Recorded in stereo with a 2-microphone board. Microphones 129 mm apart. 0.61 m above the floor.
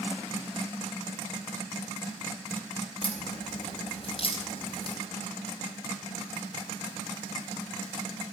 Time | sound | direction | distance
3.0 | a crack | 40° left (ahead or behind) | 4.5 m